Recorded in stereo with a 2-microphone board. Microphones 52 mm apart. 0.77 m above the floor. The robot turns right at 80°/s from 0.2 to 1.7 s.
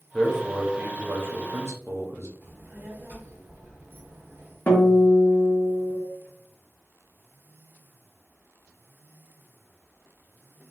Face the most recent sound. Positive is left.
turn(degrees=35)  # may be behind; listen again after turning